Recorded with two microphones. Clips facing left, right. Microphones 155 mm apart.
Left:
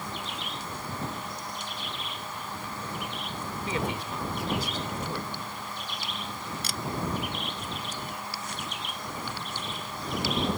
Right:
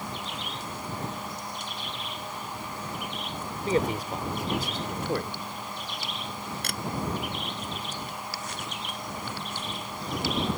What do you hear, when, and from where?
3.7 s a man speaking: 40° right (ahead or behind); by 5.4 s 75° right (ahead or behind)
6.6 s a camera shutter: 65° right (ahead or behind)